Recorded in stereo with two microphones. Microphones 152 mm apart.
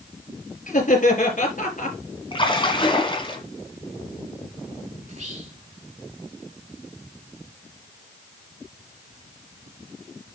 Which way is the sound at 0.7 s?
60° left (ahead or behind).